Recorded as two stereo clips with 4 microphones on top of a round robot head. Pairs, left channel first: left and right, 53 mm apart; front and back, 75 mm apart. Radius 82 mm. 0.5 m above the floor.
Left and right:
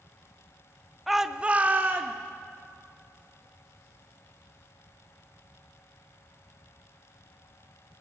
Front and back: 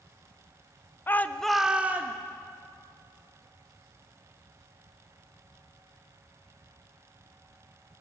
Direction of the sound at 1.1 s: 5° right.